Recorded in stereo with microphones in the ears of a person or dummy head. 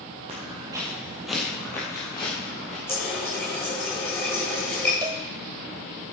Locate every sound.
0.3 s footsteps: 35° right (ahead or behind), 2 m; by 2.8 s 30° left (ahead or behind), 2.5 m
2.9 s a running tap: 10° left (ahead or behind), 4 m
5.0 s a cowbell: 20° right (ahead or behind), 0.8 m